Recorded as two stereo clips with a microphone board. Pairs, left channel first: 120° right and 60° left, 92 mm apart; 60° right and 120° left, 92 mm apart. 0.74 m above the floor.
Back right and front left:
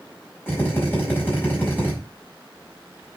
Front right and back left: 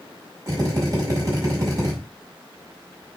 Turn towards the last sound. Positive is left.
turn(degrees=170)